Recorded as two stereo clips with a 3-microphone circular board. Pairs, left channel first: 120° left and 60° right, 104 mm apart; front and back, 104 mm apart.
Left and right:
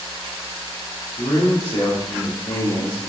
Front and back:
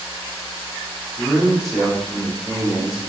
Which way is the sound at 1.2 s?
90° left.